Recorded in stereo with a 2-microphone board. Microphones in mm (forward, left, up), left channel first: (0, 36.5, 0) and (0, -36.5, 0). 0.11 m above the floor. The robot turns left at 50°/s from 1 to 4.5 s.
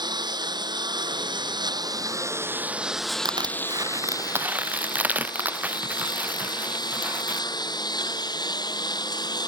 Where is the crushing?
85° right; by 7.4 s 20° right (ahead or behind).